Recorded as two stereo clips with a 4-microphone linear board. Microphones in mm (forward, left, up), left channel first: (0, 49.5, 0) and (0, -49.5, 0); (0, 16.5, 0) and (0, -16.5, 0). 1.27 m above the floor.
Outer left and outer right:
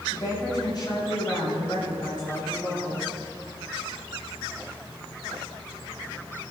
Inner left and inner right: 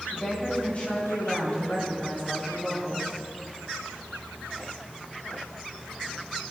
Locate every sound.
0.1 s a woman speaking: 45° left (ahead or behind), 7 m